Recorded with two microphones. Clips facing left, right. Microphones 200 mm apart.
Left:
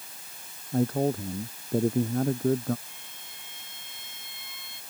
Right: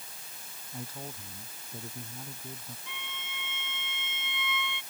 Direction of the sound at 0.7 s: 65° left (ahead or behind).